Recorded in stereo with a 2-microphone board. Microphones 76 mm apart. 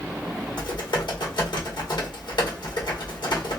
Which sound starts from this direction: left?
Typing on a keyboard, at 0.6 s.